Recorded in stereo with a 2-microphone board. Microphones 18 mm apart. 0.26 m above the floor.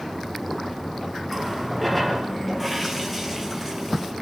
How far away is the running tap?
About 3.5 m.